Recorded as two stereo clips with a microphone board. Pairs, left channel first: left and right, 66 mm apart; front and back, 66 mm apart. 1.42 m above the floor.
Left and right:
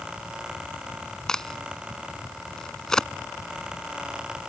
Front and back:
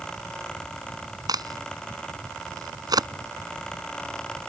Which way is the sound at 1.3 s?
170° left.